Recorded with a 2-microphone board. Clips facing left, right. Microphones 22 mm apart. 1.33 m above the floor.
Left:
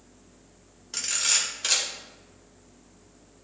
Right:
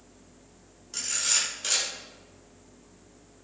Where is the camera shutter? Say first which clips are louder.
Left 2 dB; 30° left (ahead or behind), 2.5 m.